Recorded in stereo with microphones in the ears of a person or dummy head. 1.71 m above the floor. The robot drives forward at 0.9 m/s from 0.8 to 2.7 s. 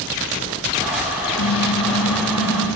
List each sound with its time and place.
1.4 s a car horn: 75° left (ahead or behind), 5 m; by 2.8 s 65° left (ahead or behind), 5 m